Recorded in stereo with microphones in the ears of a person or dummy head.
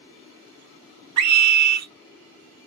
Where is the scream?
75° right (ahead or behind), 0.7 m.